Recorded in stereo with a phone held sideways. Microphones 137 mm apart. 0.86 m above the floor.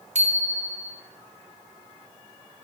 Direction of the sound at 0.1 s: 55° right (ahead or behind).